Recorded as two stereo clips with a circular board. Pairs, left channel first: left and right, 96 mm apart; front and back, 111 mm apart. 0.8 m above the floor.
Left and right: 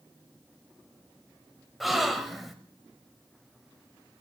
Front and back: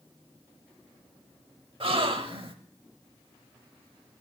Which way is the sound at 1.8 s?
175° right.